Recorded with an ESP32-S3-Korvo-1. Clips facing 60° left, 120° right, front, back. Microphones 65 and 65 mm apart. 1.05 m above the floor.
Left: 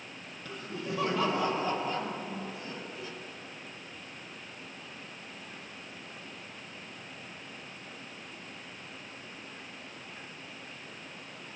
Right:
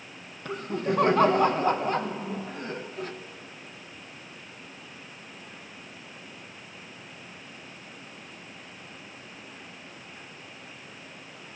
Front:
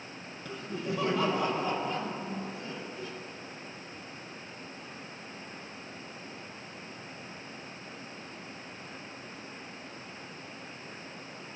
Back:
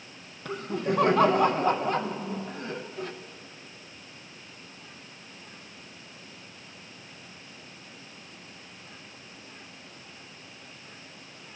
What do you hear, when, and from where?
0.5 s laughter: 150° right, 0.5 m